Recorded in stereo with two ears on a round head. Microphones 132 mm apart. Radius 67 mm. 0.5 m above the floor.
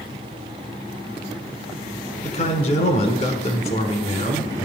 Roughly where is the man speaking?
Left.